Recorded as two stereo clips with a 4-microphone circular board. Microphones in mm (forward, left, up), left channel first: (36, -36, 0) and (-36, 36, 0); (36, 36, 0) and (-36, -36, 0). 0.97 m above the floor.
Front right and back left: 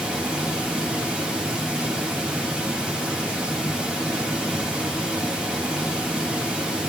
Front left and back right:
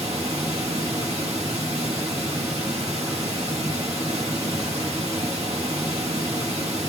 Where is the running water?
145° right, 1.6 m.